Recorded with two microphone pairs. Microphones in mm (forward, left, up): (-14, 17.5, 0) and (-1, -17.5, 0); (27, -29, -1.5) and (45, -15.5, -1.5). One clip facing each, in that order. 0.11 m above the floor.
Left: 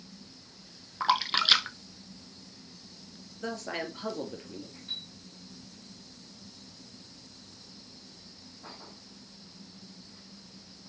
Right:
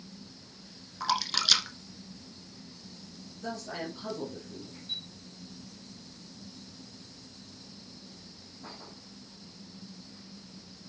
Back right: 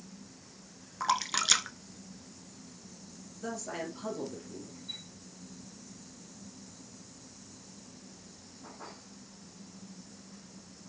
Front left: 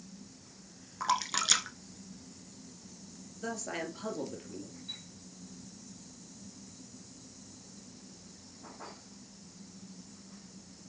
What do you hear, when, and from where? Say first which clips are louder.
1.0 s a splash: left 4 dB, back right 1 dB; 135° left, 0.6 m
3.4 s a man speaking: left 2 dB, even; 95° left, 2.5 m
4.9 s a chime: right 1 dB, back right 2 dB; 110° left, 1.4 m